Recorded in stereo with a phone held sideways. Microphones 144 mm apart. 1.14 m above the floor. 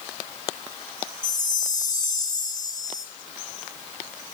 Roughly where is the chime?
Left.